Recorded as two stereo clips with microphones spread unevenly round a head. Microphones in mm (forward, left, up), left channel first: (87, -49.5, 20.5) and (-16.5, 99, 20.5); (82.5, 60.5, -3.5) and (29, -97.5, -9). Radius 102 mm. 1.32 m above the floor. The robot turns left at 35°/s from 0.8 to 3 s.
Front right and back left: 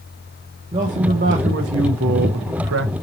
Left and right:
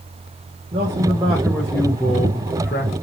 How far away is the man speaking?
About 0.6 m.